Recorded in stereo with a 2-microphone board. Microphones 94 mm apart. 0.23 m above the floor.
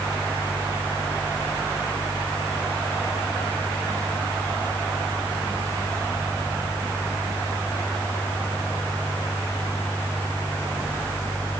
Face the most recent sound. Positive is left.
No sound to turn to.